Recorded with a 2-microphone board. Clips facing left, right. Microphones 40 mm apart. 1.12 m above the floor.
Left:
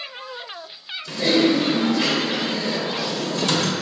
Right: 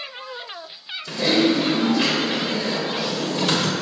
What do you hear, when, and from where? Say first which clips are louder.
1.1 s typing on a keyboard: left 1 dB; 15° right (ahead or behind), 1.3 m